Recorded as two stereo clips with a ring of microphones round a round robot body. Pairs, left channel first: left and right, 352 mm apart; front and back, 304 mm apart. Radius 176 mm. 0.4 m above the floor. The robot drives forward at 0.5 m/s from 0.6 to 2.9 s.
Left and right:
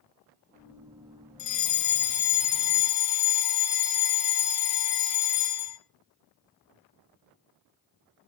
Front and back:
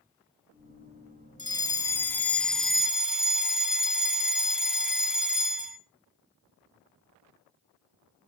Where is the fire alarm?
70° left, 2.5 m; by 5.8 s 95° left, 2.5 m.